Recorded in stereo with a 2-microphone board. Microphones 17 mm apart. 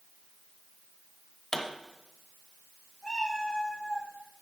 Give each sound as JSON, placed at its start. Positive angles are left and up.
{"t": 1.5, "sound": "a pop", "side_deg": 30, "distance_m": 1.0}
{"t": 3.0, "sound": "a cat meowing", "side_deg": 60, "distance_m": 4.0}